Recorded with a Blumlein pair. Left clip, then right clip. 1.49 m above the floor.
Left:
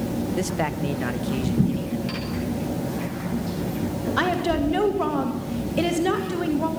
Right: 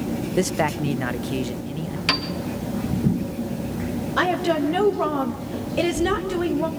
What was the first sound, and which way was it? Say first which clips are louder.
A man speaking: right 6 dB; 15° right.